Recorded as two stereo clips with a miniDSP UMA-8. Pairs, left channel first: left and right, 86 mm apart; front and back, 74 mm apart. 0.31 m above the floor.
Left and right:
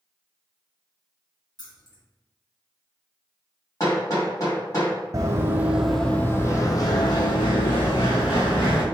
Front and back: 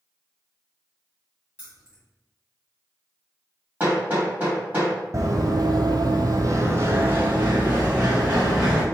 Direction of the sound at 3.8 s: 120° left.